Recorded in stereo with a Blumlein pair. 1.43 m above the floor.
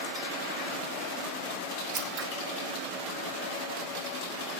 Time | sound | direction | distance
1.9 | scissors | 40° right | 2.0 m